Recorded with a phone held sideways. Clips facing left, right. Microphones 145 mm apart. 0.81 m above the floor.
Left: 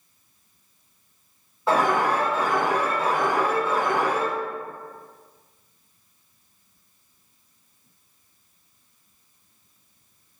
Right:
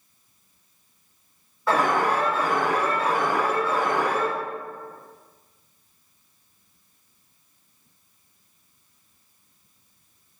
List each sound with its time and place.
1.7 s an alarm: 20° left (ahead or behind), 1.8 m